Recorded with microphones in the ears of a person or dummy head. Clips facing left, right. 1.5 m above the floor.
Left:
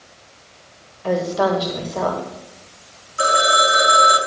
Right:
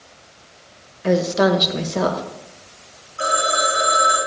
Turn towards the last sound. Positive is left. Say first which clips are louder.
# left 3 dB
turn(degrees=75)  # may be behind; listen again after turning